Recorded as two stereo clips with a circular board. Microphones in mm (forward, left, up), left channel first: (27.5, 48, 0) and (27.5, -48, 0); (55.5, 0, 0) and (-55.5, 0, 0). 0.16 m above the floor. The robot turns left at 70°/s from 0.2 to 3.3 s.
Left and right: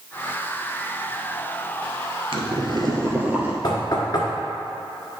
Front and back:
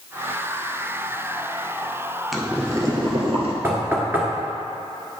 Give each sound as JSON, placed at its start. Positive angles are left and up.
{"t": 2.3, "sound": "boiling", "azimuth_deg": -90, "distance_m": 1.2}
{"t": 3.6, "sound": "knocking", "azimuth_deg": 115, "distance_m": 1.5}